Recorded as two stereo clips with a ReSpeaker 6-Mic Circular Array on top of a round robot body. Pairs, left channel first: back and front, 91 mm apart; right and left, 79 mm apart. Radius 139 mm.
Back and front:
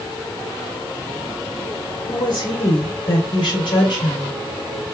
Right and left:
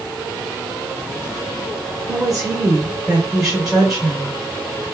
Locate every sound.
2.1 s a woman speaking: 175° left, 1.9 m